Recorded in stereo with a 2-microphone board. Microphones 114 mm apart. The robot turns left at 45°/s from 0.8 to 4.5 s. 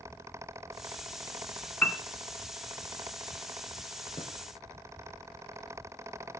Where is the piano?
15° left (ahead or behind), 0.5 m; by 2.0 s 10° left (ahead or behind), 0.5 m.